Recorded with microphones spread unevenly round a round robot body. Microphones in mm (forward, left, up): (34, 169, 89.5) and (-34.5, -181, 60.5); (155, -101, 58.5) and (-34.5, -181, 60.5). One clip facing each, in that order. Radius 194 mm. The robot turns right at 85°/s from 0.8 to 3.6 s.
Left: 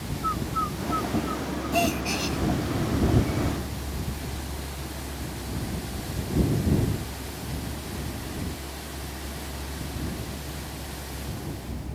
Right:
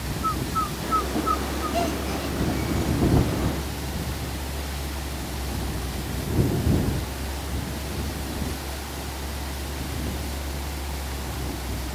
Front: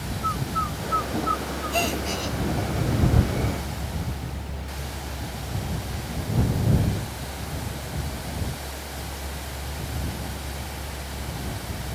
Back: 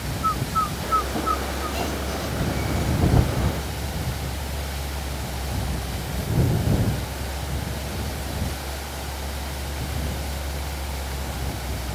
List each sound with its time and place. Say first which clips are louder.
0.2 s a bird: right 2 dB, back 2 dB; 155° right; by 1.8 s 70° right
1.7 s a gasp: left 1 dB, front 4 dB; 10° left; by 2.4 s 70° left